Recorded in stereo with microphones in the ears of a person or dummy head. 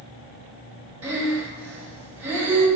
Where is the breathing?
20° right (ahead or behind), 0.9 m.